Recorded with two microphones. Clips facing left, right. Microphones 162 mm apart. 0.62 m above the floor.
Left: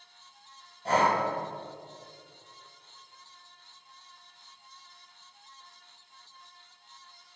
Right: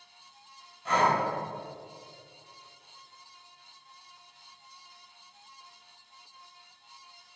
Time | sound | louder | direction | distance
0.8 | breathing | left 1 dB | 35° left (ahead or behind) | 2.5 m